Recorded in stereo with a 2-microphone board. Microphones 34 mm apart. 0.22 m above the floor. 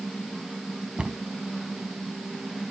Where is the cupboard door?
30° right (ahead or behind), 0.9 m.